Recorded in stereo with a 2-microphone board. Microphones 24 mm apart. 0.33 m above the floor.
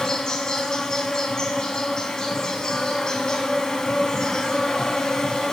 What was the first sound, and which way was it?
An insect, 30° left (ahead or behind).